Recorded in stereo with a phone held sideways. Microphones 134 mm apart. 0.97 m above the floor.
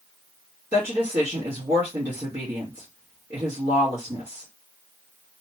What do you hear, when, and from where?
0.7 s a woman speaking: 40° right (ahead or behind), 1.3 m